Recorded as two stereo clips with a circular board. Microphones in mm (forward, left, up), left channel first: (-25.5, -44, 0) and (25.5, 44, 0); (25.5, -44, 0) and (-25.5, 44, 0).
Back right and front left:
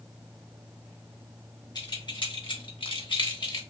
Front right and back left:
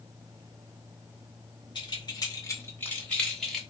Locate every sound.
1.8 s keys jangling: 80° right, 1.1 m; by 3.6 s 150° right, 1.2 m